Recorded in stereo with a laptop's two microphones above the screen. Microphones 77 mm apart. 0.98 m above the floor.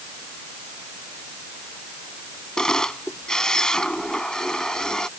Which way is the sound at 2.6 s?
5° left (ahead or behind).